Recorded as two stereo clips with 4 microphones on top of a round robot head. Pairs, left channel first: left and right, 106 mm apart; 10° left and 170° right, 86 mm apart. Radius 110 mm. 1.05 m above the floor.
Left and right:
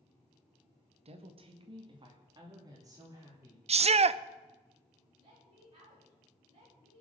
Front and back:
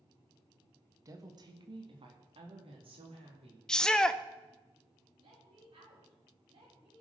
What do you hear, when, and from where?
1.1 s a woman speaking: 115° right, 1.6 m; by 3.6 s 155° right, 4 m
3.7 s a shout: 75° right, 0.7 m
5.2 s a woman speaking: 140° right, 8 m